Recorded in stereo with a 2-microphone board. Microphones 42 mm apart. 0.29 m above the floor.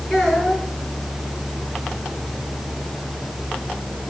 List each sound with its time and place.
0.1 s a child speaking: 5° left (ahead or behind), 4 m